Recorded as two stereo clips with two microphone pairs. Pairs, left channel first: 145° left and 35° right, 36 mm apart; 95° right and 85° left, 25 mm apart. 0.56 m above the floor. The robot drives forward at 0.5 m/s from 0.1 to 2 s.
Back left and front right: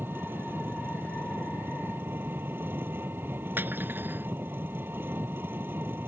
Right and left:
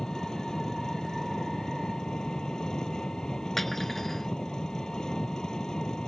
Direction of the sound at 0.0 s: 30° right.